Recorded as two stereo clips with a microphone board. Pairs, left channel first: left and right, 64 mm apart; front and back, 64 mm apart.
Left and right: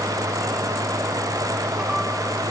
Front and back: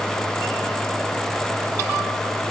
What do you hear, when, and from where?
Only background noise.